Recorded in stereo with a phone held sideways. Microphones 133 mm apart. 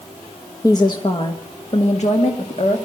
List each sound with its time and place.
0.6 s a woman speaking: 25° left (ahead or behind), 1.1 m; by 2.9 s 65° left (ahead or behind), 2 m